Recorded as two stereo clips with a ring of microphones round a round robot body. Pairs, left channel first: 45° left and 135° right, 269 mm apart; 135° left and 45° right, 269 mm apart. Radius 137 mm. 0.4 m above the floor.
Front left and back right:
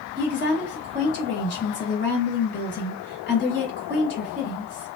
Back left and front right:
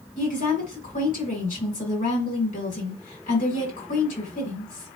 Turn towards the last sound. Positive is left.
turn(degrees=80)